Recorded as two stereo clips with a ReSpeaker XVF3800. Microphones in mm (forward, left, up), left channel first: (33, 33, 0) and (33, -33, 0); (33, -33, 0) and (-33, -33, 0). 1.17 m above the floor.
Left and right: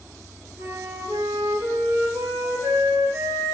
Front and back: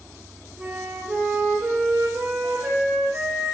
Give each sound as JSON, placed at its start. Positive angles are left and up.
{"t": 0.6, "sound": "a flute", "azimuth_deg": -120, "distance_m": 1.3}